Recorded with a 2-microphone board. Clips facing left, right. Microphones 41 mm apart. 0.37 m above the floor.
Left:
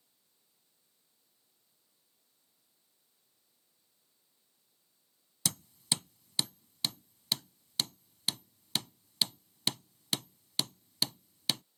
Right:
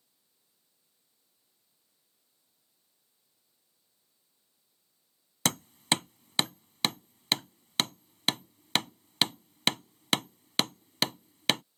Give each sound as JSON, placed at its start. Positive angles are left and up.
{"t": 5.5, "sound": "hammering", "side_deg": -60}